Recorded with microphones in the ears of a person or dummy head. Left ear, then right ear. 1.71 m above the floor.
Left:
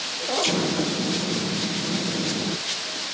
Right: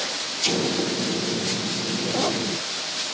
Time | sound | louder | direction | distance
0.4 | an explosion | right 3 dB | 25° left (ahead or behind) | 3 m